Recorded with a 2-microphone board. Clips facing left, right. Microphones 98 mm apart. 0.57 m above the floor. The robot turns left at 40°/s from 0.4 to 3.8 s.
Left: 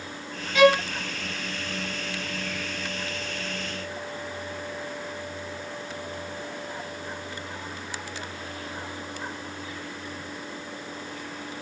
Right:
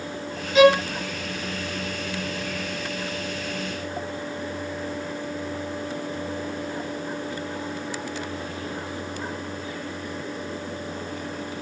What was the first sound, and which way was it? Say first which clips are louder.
A violin: right 3 dB; 20° right (ahead or behind).